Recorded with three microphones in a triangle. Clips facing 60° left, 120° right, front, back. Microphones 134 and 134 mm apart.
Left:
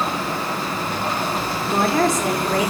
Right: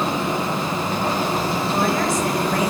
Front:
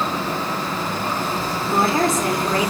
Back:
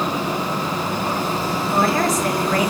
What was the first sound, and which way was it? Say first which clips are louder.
A woman speaking: left 5 dB, front 1 dB; 65° left.